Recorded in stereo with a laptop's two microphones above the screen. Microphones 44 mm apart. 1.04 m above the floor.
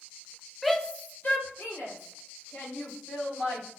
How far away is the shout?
About 0.6 m.